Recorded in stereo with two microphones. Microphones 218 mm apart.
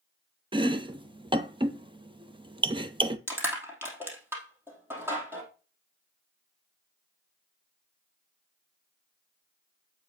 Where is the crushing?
10° right (ahead or behind), 3 m.